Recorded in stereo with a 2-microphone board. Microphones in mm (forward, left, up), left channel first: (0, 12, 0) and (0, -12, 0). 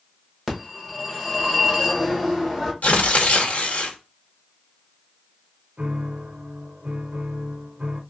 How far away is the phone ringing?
About 1.6 m.